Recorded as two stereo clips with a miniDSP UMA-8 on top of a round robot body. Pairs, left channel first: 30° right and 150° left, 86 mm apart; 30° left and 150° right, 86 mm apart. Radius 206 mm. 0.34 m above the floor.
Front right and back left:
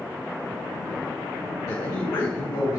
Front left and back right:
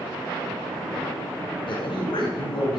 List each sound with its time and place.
1.7 s a man speaking: 15° left, 3 m; by 2.8 s 5° left, 4 m